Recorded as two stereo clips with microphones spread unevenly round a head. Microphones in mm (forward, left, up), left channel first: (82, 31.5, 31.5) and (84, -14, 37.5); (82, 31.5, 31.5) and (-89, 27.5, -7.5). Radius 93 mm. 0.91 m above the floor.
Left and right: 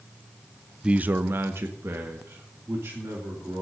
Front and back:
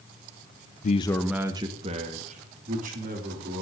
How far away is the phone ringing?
No phone ringing in this recording.